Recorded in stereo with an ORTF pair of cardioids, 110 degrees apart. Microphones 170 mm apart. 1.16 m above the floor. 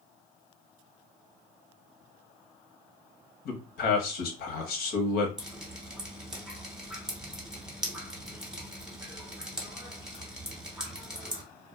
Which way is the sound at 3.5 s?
65° left.